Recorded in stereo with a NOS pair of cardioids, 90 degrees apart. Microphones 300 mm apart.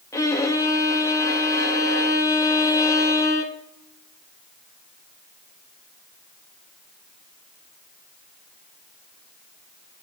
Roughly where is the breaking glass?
I don't hear breaking glass.